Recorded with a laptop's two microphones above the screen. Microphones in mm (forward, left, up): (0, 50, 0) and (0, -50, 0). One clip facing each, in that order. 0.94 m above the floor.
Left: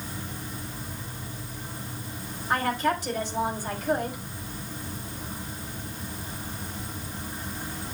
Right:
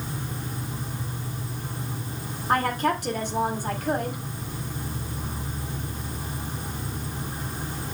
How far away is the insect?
About 3.5 m.